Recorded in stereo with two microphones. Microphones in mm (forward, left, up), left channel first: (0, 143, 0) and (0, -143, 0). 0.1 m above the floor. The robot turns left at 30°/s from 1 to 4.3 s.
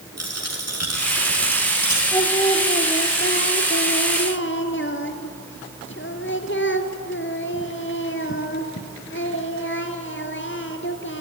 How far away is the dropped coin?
About 6 m.